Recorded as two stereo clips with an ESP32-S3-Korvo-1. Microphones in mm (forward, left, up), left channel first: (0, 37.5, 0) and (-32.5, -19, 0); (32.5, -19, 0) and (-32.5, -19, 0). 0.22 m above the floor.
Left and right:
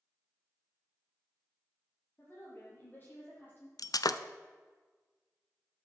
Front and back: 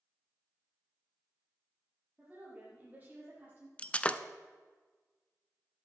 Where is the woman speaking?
115° left, 6.5 m; by 3.7 s 120° left, 6 m.